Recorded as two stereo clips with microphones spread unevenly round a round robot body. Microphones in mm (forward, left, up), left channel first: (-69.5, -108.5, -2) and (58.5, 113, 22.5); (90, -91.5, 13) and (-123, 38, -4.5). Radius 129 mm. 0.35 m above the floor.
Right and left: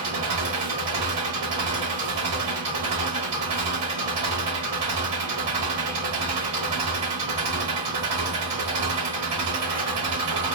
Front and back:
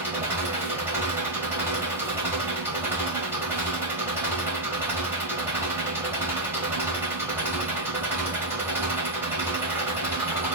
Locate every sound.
0.0 s an engine running: 70° left, 1.2 m